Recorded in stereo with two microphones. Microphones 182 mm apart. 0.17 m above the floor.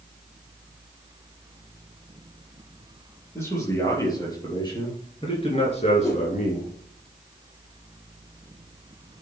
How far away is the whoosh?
About 5 m.